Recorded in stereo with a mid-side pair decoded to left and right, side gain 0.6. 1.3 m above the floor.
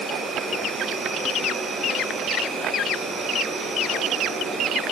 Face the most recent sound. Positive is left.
turn(degrees=-35)